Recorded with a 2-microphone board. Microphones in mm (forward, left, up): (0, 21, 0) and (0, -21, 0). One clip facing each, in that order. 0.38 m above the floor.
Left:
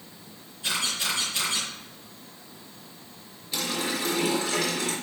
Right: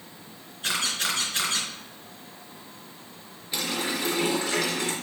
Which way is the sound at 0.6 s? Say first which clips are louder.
Right 1 dB; 55° right (ahead or behind).